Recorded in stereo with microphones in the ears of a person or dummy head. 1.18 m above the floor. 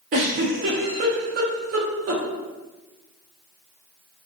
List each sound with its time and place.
0.1 s a giggle: 35° right (ahead or behind), 0.6 m